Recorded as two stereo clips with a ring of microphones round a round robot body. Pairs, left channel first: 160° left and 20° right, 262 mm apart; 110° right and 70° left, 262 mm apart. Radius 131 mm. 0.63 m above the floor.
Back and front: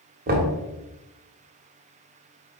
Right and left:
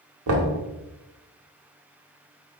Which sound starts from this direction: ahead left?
Knocking, at 0.3 s.